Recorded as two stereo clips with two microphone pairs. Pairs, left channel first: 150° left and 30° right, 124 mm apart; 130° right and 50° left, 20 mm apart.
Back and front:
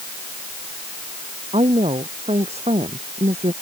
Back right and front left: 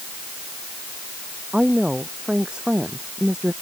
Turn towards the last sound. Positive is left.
turn(degrees=0)